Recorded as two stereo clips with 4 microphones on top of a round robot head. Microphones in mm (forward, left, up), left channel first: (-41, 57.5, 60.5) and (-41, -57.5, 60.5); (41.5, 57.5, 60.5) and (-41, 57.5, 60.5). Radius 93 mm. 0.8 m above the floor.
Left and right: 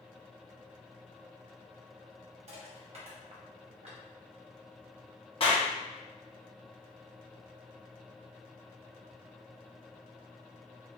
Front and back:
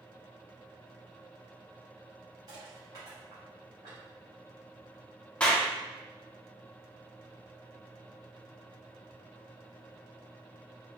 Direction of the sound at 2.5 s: 120° right.